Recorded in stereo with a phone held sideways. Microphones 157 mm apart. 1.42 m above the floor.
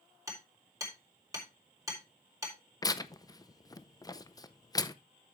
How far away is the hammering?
About 4 m.